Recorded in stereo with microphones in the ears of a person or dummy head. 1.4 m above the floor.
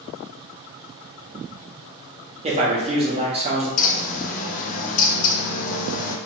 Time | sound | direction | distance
2.4 | a man speaking | 25° right (ahead or behind) | 0.8 m
3.8 | a bird | 45° left (ahead or behind) | 0.5 m